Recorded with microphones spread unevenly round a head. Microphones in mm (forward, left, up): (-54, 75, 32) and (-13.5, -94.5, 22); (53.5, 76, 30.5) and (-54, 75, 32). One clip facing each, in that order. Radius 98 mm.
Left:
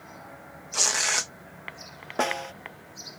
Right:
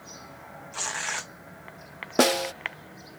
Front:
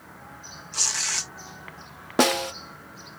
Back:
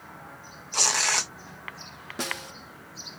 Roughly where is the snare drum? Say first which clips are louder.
Right 7 dB, front 14 dB; ahead right.